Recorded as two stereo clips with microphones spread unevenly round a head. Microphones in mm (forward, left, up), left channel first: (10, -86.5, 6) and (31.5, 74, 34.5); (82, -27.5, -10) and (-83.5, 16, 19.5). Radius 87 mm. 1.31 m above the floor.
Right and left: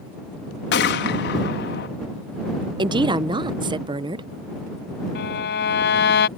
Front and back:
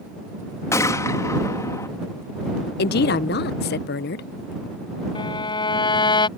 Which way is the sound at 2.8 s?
20° left.